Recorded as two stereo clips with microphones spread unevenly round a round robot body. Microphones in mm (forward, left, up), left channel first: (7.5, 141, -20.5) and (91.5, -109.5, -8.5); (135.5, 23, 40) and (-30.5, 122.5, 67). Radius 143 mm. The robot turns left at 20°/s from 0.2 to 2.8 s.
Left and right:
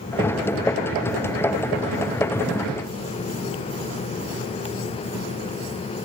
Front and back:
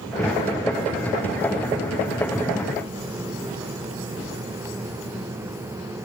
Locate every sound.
Only background noise.